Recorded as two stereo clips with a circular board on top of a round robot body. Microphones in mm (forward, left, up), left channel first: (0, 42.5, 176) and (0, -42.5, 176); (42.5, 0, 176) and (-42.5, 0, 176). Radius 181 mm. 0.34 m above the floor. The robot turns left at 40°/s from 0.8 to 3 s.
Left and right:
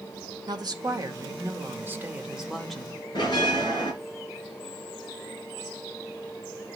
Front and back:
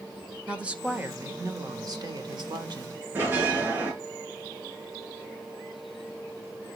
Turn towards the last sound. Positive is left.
turn(degrees=115)